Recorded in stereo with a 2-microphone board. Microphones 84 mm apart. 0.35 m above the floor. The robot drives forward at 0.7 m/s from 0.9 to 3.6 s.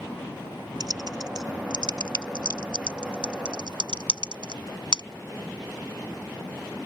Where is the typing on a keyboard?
50° right (ahead or behind); by 5.0 s 70° right (ahead or behind).